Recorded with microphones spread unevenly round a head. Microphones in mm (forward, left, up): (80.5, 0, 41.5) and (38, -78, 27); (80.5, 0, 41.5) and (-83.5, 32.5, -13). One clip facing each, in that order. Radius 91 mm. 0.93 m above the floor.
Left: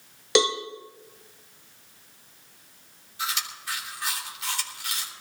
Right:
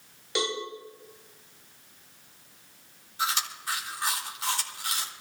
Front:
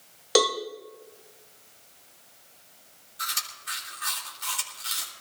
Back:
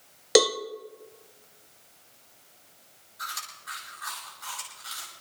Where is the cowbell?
95° left, 1.4 m.